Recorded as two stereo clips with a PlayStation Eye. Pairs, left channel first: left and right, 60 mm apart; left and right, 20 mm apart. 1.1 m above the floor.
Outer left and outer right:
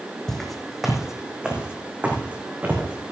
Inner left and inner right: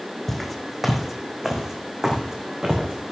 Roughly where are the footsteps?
Centre.